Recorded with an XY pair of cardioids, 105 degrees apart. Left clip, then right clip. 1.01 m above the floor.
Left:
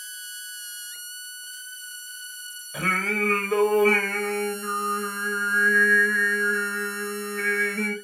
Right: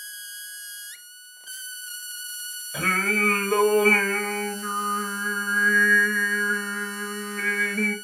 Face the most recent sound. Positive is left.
turn(degrees=-15)